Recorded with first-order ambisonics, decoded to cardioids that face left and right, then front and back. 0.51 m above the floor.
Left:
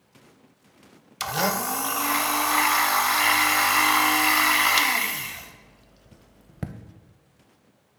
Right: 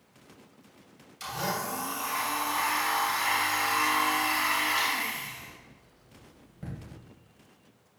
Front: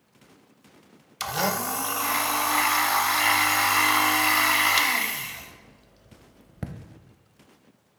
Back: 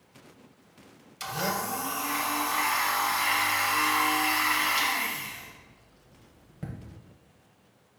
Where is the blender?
55° left, 0.5 m.